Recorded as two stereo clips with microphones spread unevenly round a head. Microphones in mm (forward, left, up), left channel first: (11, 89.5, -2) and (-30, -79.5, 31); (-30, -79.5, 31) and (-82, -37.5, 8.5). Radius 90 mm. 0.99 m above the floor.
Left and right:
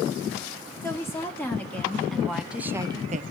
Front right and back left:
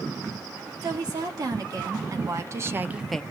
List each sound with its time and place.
0.8 s a woman speaking: 150° left, 2.5 m; by 3.2 s 130° right, 0.5 m